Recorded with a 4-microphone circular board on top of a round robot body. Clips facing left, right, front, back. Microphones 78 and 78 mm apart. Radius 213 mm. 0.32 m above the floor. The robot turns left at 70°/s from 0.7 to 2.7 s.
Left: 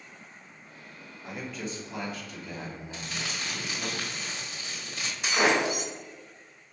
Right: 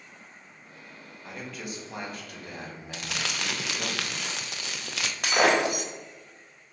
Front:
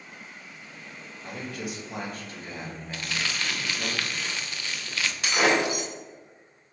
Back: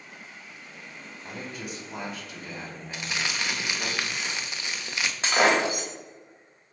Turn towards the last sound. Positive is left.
turn(degrees=-120)